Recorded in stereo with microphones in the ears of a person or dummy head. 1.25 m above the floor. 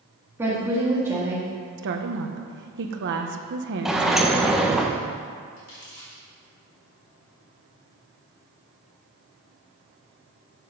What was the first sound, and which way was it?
A woman speaking, 15° right (ahead or behind).